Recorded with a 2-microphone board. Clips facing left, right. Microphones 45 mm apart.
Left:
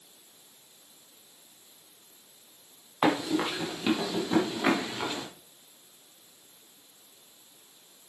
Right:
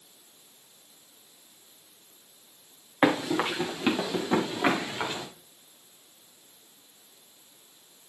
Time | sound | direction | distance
3.0 | running footsteps | 30° right (ahead or behind) | 3.5 m